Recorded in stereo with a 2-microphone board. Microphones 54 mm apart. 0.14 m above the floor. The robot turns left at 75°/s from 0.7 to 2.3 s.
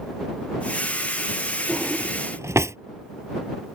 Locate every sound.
1.7 s a drawer: 20° right (ahead or behind); by 2.8 s 60° right (ahead or behind)